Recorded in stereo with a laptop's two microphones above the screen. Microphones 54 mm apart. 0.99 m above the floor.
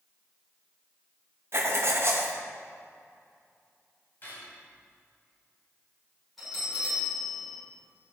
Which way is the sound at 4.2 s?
35° left (ahead or behind).